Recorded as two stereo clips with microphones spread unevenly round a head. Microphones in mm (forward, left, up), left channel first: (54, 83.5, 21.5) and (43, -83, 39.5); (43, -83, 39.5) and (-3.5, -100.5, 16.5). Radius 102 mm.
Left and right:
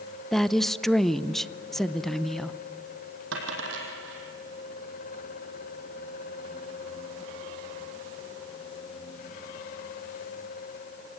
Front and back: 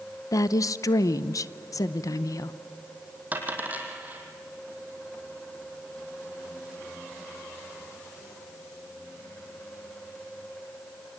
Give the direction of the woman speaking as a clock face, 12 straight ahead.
12 o'clock.